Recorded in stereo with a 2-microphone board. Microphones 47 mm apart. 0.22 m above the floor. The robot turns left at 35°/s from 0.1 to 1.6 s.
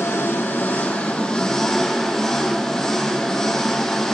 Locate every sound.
0.0 s an engine running: 65° left, 2 m; by 4.1 s 10° left, 2 m